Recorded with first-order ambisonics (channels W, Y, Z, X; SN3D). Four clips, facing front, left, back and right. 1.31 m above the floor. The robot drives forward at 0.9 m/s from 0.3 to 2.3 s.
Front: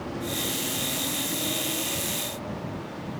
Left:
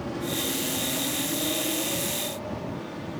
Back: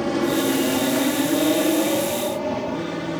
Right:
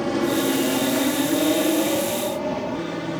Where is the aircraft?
140° right.